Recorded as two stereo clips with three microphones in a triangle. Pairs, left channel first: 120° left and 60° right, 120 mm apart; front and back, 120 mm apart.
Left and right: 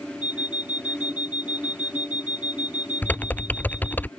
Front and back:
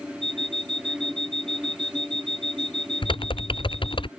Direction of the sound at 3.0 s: 45° left.